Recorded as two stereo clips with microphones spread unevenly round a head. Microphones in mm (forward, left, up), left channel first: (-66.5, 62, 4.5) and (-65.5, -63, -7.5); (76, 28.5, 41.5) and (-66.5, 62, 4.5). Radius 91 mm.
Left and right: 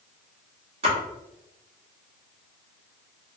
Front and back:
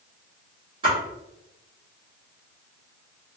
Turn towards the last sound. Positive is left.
turn(degrees=-125)